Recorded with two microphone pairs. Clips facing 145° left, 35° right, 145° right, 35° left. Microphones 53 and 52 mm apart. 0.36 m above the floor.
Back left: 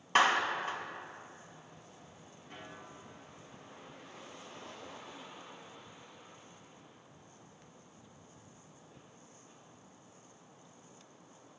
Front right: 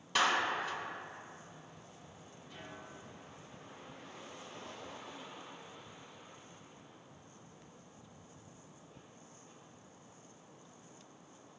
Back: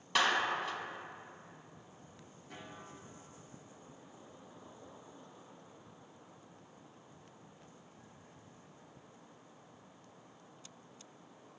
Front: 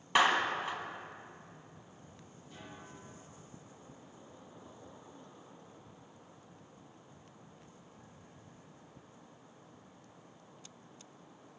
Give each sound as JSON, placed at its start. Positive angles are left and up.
{"t": 0.1, "sound": "a clap", "azimuth_deg": 100, "distance_m": 2.0}
{"t": 2.5, "sound": "a snare drum", "azimuth_deg": -170, "distance_m": 5.0}